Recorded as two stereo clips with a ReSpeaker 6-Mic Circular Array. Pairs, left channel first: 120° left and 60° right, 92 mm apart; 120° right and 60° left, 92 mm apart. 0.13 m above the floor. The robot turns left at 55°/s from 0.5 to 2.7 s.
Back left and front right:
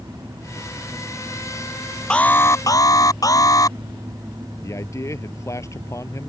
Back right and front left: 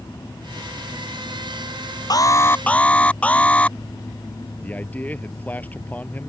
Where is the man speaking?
170° left.